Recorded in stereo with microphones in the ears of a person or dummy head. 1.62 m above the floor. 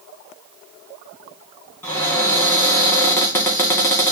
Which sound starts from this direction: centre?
A cupboard door, at 1.8 s.